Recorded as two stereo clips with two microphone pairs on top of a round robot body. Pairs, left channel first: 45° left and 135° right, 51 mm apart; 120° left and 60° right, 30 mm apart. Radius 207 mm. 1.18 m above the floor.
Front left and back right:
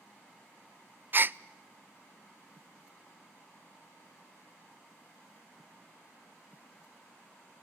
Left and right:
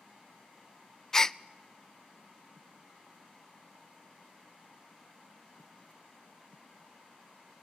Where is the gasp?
150° right, 0.5 m.